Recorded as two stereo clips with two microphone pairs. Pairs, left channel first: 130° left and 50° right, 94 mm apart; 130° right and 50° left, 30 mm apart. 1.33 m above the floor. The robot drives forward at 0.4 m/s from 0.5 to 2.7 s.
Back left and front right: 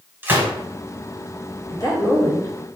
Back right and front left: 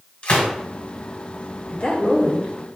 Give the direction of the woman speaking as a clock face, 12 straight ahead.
6 o'clock.